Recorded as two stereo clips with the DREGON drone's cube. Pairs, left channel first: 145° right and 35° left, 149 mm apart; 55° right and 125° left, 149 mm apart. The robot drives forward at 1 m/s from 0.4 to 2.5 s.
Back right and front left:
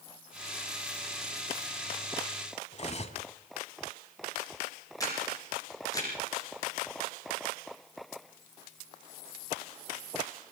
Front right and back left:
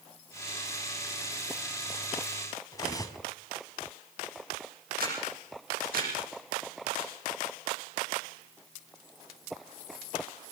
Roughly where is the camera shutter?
Behind left.